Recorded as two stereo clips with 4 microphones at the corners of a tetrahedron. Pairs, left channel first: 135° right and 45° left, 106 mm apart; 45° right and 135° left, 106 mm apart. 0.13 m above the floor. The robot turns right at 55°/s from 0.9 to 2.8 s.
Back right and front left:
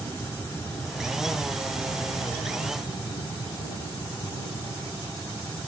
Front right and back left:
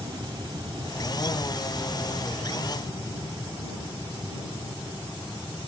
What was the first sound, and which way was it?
An aircraft, 160° left.